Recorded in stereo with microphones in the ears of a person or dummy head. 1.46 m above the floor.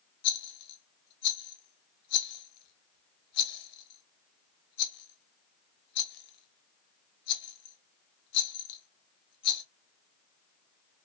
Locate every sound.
0.2 s a rattle: 60° left (ahead or behind), 0.7 m